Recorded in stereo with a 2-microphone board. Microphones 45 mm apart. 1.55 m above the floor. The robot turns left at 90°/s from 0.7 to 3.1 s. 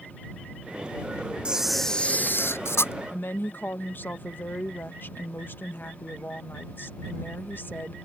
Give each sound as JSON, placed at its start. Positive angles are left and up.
{"t": 1.4, "sound": "a camera shutter", "azimuth_deg": -155}
{"t": 3.1, "sound": "a woman speaking", "side_deg": 50}